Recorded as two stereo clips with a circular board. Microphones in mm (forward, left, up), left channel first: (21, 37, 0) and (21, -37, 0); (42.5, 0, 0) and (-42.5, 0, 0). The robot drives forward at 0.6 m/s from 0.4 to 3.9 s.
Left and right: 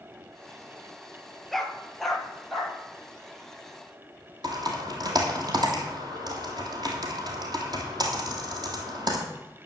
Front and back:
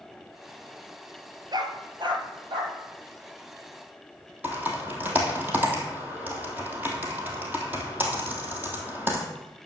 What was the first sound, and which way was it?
A dog barking, 175° left.